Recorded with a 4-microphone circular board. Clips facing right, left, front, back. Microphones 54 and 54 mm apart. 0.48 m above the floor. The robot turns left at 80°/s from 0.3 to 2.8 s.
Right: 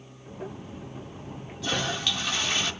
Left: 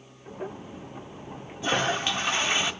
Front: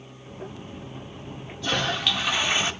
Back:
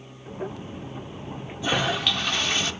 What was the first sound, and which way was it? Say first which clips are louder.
A toilet flushing: left 4 dB, back 1 dB; 125° left.